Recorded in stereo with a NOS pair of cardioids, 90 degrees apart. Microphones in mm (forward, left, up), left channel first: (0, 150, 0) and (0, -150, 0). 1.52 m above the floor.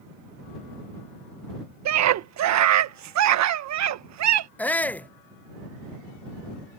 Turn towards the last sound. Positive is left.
turn(degrees=5)